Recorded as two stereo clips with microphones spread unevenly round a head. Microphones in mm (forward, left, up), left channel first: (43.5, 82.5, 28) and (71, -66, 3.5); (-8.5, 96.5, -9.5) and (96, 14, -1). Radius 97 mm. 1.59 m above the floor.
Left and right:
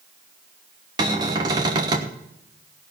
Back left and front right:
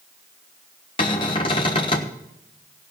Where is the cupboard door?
155° right, 0.9 m.